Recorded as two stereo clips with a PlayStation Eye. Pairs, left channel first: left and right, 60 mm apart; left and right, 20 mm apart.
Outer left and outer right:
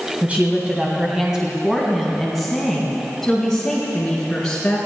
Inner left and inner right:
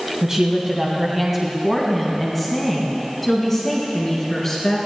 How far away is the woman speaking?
About 2 m.